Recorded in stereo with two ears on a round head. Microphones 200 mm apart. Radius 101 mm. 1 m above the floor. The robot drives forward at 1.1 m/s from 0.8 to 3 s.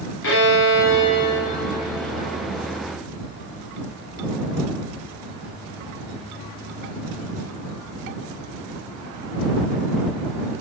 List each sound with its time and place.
0.2 s a violin: 65° left (ahead or behind), 2 m; by 2.8 s 30° left (ahead or behind), 3.5 m